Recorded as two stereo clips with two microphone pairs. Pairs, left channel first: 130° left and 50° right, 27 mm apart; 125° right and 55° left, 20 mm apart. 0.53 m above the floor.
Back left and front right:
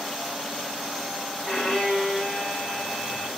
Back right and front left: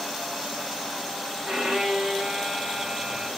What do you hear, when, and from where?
1.4 s a violin: 70° left, 1.5 m